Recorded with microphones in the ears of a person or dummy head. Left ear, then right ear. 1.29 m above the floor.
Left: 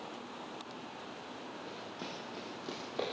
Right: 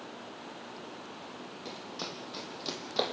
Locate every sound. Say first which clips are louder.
1.6 s running footsteps: right 7 dB; 35° right (ahead or behind), 4 m; by 3.1 s 40° right (ahead or behind), 3.5 m